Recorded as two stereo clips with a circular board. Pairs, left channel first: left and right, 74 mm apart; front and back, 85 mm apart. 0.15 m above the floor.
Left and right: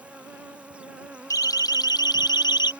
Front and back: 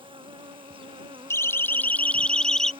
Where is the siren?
55° left; by 2.7 s 85° left.